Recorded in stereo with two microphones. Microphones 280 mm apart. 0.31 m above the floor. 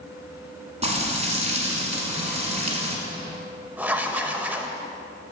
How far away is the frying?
About 1.4 m.